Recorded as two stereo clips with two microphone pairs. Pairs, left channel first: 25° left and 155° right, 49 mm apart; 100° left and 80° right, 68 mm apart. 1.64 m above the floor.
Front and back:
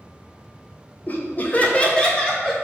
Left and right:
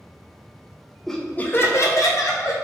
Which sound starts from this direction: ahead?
Laughter, at 1.1 s.